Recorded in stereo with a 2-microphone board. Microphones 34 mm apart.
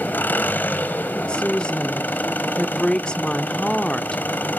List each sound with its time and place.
0.0 s an engine running: 75° left (ahead or behind), 1.3 m
1.1 s a woman speaking: 30° left (ahead or behind), 0.9 m